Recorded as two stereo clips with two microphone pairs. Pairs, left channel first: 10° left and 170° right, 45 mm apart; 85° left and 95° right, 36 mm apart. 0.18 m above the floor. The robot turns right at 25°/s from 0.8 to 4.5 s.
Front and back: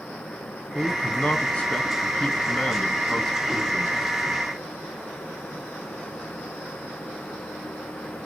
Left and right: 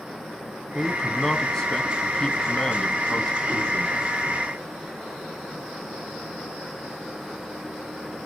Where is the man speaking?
5° left, 1.1 m; by 4.0 s 85° left, 1.1 m.